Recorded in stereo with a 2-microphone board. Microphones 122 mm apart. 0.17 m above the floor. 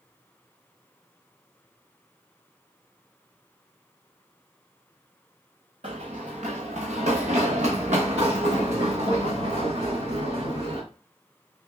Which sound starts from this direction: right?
Running footsteps, at 5.8 s.